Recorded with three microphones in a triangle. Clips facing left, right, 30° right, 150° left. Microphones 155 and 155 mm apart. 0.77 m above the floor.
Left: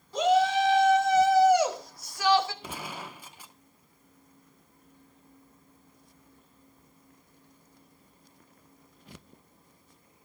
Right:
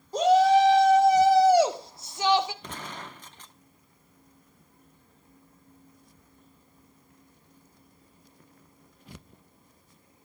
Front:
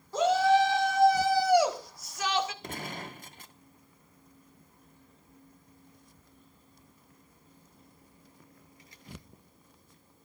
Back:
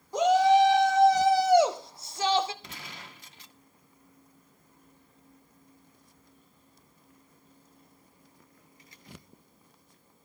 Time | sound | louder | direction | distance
0.1 | a shout | right 4 dB, back 3 dB | 135° right | 2.5 m
2.6 | a gunshot | left 1 dB, front 8 dB | 10° left | 0.6 m